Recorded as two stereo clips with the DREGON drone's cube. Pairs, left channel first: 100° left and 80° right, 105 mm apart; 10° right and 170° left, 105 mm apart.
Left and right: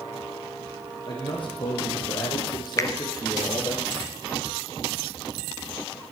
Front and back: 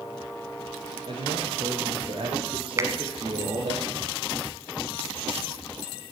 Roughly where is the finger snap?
Behind left.